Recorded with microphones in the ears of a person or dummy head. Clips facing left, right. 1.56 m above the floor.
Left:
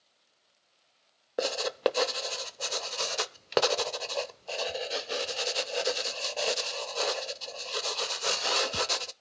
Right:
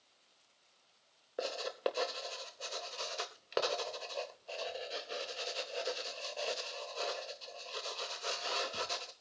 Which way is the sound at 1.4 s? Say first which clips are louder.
Left 8 dB; 60° left (ahead or behind).